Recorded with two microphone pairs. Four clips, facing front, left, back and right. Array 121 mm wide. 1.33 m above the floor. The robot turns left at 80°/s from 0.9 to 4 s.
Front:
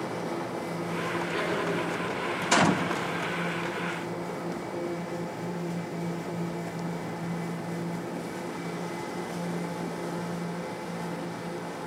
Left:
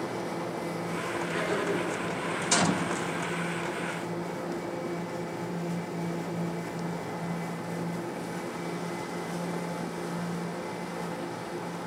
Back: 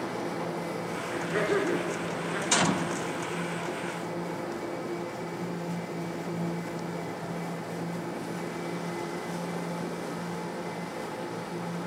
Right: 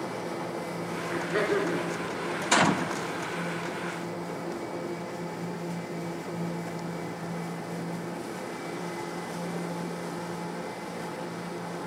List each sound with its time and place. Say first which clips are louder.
1.1 s laughter: right 5 dB, back 5 dB; 90° right, 3.5 m; by 2.4 s 165° left, 3.5 m
2.5 s a gunshot: right 4 dB, front 4 dB; 55° right, 0.7 m; by 2.9 s 85° right, 0.7 m